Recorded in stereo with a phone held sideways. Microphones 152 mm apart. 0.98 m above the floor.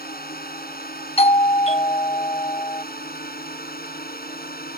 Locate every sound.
0.0 s a drone: 80° left
1.2 s a doorbell: 40° left (ahead or behind)